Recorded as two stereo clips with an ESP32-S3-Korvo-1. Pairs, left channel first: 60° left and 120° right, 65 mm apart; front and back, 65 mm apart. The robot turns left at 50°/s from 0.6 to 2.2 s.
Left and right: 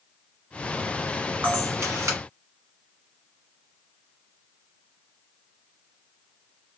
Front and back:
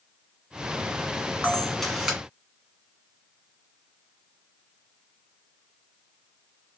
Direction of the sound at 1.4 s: 70° right.